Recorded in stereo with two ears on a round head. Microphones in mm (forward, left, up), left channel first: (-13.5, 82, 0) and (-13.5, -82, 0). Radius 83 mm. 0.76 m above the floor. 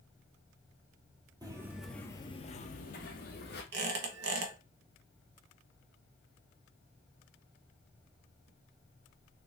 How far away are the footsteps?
About 0.9 m.